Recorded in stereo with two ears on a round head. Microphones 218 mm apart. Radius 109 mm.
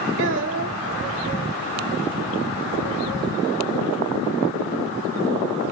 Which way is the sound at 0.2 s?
50° right (ahead or behind).